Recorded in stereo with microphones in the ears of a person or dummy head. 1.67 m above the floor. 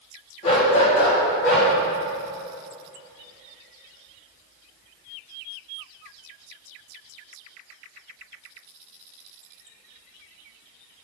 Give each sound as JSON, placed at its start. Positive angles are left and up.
{"t": 0.4, "sound": "a dog barking", "side_deg": 35, "distance_m": 1.8}